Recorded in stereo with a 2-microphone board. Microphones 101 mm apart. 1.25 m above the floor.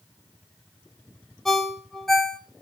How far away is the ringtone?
About 1.6 m.